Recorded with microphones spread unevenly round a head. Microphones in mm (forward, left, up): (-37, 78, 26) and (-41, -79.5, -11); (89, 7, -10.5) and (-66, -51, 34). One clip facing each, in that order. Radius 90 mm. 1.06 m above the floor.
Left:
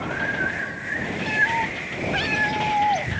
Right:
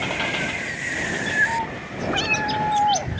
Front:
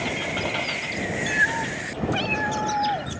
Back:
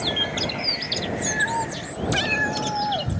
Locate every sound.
1.3 s a cat meowing: 80° left; by 3.2 s 165° left